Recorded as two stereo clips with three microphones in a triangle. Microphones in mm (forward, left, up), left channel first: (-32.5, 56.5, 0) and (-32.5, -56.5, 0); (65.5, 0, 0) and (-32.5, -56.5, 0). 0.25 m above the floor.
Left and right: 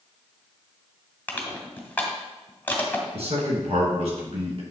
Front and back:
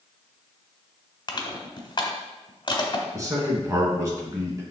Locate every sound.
1.3 s crushing: 25° left, 1.3 m
3.1 s a man speaking: 90° right, 2.5 m